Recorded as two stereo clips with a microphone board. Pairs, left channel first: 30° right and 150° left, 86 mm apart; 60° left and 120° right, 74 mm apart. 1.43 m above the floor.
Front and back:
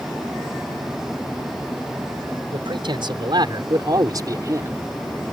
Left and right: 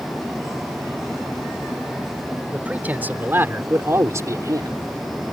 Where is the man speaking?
170° left; by 4.8 s 155° right.